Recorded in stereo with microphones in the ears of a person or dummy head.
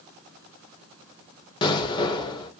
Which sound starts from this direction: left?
An explosion, at 1.6 s.